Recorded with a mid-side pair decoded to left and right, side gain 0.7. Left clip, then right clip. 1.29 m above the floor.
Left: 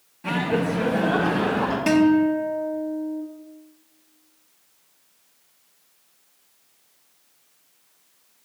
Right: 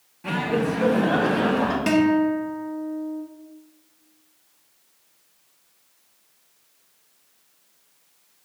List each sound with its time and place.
0.2 s laughter: 5° left, 1.3 m; by 1.8 s 15° right, 3 m
1.9 s a guitar: 5° right, 1.6 m